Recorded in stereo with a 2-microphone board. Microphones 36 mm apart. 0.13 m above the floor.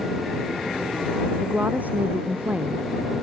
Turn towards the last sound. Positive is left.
turn(degrees=-50)  # may be behind; listen again after turning